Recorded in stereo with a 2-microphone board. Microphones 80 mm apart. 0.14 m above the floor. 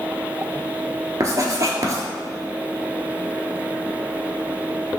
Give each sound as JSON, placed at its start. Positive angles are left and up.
{"t": 1.2, "sound": "writing", "side_deg": -45, "distance_m": 0.7}